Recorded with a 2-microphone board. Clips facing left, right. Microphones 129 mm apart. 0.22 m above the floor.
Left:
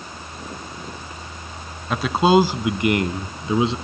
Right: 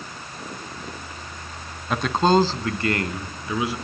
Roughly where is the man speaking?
Centre.